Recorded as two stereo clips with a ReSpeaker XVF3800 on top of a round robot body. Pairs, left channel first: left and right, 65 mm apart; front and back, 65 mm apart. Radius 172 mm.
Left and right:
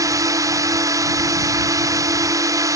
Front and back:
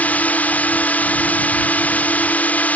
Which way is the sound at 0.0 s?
65° right.